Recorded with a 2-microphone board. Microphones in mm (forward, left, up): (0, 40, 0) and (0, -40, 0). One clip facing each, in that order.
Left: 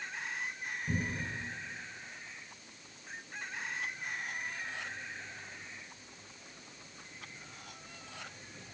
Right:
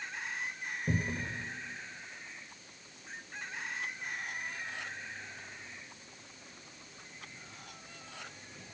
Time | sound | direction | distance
0.9 | a cupboard door | 55° right (ahead or behind) | 3 m